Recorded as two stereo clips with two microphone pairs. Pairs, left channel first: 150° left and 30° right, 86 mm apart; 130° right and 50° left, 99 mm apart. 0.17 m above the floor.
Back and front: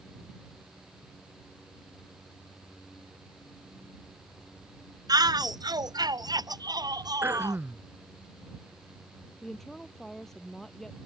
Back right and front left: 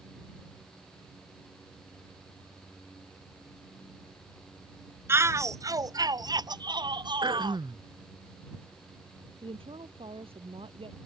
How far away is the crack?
I don't hear a crack.